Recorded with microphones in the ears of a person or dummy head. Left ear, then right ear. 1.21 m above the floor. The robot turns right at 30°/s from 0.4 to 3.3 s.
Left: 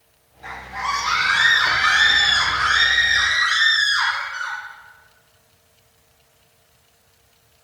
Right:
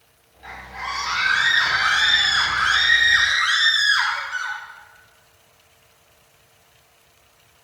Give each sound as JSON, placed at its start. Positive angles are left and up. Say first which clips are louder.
{"t": 0.4, "sound": "a scream", "louder": "left 4 dB", "azimuth_deg": 170, "distance_m": 2.5}